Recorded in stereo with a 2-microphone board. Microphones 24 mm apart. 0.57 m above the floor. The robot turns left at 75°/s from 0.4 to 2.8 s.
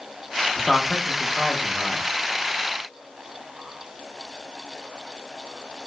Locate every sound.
0.6 s a man speaking: 10° left (ahead or behind), 0.6 m; by 2.0 s 15° left (ahead or behind), 0.6 m